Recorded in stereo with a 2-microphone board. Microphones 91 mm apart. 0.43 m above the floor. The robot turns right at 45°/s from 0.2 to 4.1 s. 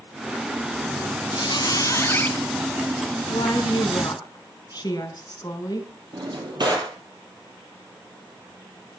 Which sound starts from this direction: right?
A drawer, at 6.1 s.